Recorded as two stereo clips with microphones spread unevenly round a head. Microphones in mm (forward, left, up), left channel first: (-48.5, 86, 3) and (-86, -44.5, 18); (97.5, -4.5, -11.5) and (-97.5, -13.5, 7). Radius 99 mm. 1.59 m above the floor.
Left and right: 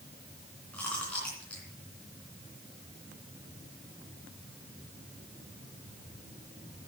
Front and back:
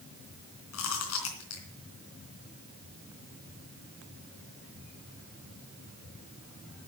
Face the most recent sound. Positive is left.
turn(degrees=-15)